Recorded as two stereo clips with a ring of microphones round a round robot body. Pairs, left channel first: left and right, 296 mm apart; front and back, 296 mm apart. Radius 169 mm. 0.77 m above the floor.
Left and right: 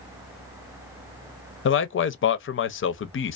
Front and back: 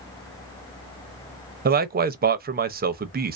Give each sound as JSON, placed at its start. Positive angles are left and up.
{"t": 1.6, "sound": "a man speaking", "azimuth_deg": 130, "distance_m": 0.5}